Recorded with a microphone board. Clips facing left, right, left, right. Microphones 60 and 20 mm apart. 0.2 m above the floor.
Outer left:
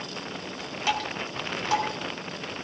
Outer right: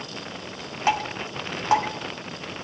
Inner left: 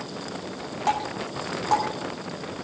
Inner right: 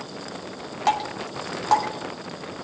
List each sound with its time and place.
0.9 s dripping: 35° right (ahead or behind), 2 m